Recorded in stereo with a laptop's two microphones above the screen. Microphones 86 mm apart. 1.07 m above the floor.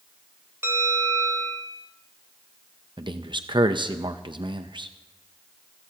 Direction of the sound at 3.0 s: 65° right (ahead or behind).